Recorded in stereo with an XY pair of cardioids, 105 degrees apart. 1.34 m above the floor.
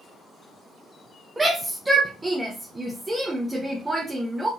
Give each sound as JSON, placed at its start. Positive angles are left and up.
{"t": 1.4, "sound": "a shout", "azimuth_deg": -15, "distance_m": 0.9}